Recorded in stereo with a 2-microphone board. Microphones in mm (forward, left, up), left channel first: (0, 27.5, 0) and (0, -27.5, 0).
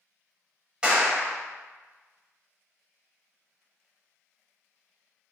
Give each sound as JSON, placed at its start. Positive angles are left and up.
{"t": 0.8, "sound": "a clap", "side_deg": -20, "distance_m": 1.4}